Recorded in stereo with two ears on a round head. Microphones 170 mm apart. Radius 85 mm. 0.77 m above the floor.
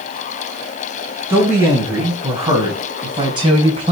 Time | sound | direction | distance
1.3 | a man speaking | 10° right (ahead or behind) | 5 m